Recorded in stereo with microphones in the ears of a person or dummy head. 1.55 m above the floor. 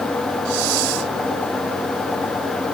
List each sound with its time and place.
0.5 s a hiss: 75° right (ahead or behind)